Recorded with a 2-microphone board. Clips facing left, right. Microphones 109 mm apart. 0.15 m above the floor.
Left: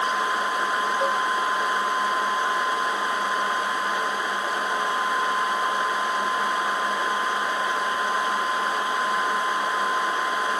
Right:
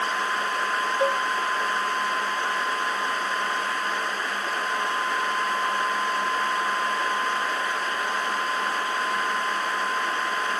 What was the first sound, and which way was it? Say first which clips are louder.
A cowbell: right 3 dB; 15° right (ahead or behind).